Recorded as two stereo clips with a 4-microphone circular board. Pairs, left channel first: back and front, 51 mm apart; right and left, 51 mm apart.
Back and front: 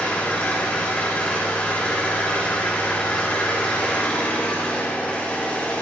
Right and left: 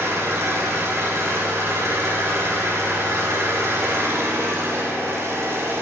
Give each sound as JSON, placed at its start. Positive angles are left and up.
{"t": 0.0, "sound": "an engine running", "azimuth_deg": 115, "distance_m": 6.0}